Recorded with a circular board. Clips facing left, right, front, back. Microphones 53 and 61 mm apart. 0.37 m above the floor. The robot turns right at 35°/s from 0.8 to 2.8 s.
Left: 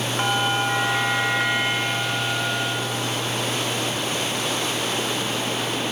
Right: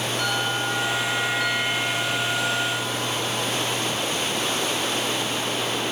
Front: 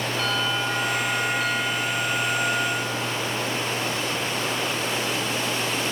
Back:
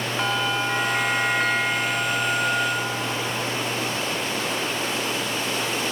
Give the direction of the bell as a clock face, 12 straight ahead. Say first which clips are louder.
Left 5 dB, back 3 dB; 8 o'clock.